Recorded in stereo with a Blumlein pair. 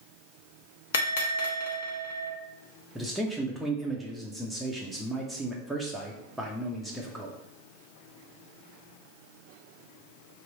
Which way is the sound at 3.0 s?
Straight ahead.